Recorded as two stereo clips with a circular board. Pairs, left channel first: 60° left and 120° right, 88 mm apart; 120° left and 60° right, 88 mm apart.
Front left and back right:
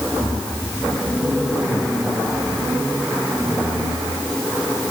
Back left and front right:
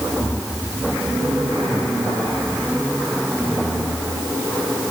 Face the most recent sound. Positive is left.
No sound to turn to.